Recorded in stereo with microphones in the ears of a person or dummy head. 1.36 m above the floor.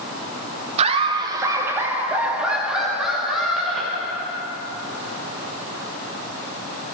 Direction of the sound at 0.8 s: 35° right (ahead or behind).